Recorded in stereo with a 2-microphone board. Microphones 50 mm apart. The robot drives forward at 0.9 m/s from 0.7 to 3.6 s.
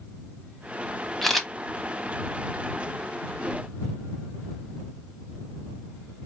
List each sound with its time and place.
1.2 s a camera shutter: 5° left (ahead or behind), 0.9 m